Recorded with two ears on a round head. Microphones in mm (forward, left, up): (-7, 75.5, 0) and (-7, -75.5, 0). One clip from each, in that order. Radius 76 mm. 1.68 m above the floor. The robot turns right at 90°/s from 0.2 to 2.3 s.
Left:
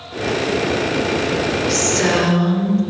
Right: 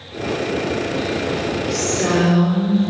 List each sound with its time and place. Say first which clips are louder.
1.7 s a woman speaking: left 2 dB; 50° left, 6.5 m; by 2.8 s 105° left, 6.5 m